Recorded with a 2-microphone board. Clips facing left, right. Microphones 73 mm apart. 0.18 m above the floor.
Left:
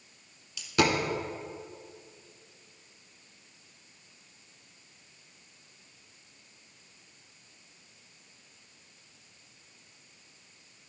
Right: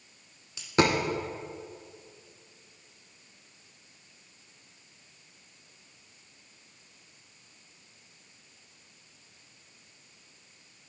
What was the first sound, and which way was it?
A dropped coin, 35° right (ahead or behind).